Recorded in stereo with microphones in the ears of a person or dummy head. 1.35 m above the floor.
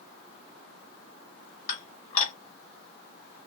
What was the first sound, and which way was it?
Dishes clattering, 45° left (ahead or behind).